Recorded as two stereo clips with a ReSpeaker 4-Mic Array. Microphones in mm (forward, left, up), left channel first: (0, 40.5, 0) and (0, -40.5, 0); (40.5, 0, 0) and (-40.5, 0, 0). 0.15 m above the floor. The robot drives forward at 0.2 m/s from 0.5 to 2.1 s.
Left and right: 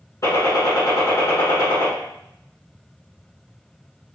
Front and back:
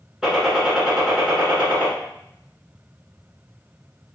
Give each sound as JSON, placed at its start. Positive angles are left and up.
{"t": 0.2, "sound": "a gunshot", "azimuth_deg": 100, "distance_m": 1.3}